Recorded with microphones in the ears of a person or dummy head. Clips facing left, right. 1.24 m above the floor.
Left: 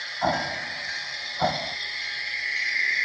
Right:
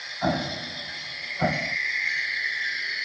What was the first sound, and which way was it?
An explosion, 30° right (ahead or behind).